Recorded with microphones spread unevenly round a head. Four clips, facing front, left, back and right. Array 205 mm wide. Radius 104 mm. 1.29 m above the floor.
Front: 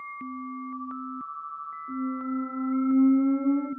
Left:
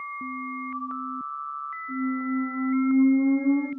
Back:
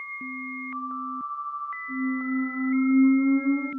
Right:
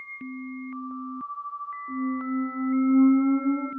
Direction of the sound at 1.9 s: 60° right.